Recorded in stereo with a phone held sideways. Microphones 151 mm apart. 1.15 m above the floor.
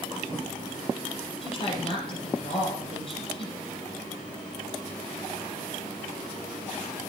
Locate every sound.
1.4 s a woman speaking: 40° left (ahead or behind), 6 m